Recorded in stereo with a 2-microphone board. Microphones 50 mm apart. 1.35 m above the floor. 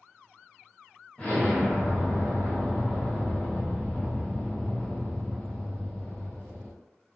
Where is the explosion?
30° left (ahead or behind), 1.1 m.